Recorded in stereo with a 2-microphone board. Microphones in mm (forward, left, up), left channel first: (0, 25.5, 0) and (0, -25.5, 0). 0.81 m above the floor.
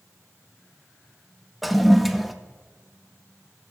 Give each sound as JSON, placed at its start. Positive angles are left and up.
{"t": 1.6, "sound": "a toilet flushing", "side_deg": 0, "distance_m": 0.6}